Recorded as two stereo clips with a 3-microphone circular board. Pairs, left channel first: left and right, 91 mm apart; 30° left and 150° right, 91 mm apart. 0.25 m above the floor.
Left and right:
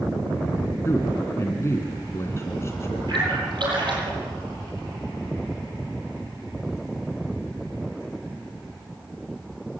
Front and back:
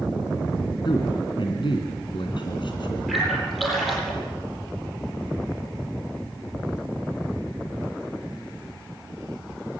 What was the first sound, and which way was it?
A man speaking, 35° left.